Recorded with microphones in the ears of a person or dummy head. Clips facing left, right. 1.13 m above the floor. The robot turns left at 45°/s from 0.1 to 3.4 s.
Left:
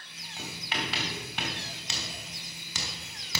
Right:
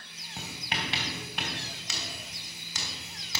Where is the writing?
50° right (ahead or behind), 2.5 m; by 3.4 s 75° left (ahead or behind), 2.5 m.